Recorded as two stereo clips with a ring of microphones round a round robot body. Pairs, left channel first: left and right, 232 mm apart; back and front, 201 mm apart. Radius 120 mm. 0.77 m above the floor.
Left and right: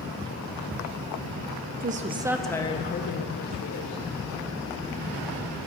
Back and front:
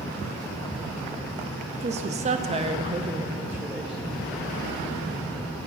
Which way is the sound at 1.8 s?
50° right.